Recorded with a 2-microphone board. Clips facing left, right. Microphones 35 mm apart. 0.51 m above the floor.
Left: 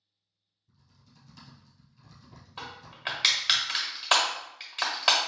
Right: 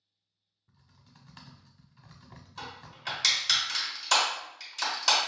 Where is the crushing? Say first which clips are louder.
Left 2 dB; 35° left (ahead or behind), 1.4 m.